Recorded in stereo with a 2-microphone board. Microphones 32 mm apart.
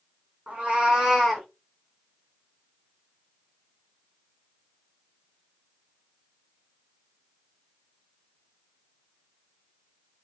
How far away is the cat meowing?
About 1.7 m.